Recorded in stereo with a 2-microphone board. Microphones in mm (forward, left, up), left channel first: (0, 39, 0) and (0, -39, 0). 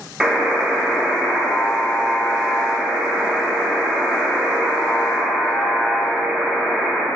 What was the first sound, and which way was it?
A buzzer, 10° right (ahead or behind).